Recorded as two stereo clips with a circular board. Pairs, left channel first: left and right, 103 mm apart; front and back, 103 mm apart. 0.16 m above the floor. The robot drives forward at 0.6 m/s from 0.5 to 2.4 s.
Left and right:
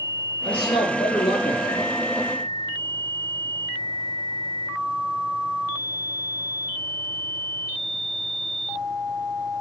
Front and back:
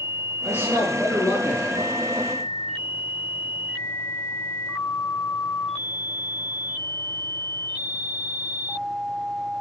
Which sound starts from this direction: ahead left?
A man speaking, at 0.4 s.